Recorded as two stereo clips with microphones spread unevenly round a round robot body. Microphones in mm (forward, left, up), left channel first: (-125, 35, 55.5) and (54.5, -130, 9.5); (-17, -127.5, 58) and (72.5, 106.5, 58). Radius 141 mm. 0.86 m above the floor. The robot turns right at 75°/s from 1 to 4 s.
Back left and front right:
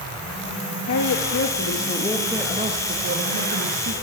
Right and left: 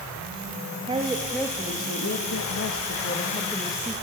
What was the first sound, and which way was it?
A woman speaking, 135° left.